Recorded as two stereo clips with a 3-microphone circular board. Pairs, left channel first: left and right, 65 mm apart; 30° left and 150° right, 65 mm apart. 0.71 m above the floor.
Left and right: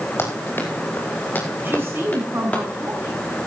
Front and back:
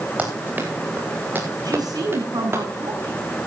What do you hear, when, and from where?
0.2 s running footsteps: 145° left, 6 m; by 2.6 s 160° left, 7 m
1.6 s a woman speaking: 145° right, 6.5 m